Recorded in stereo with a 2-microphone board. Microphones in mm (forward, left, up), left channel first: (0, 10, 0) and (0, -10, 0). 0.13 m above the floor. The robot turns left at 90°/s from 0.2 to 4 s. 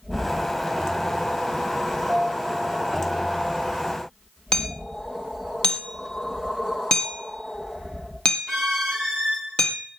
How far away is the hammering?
About 4 m.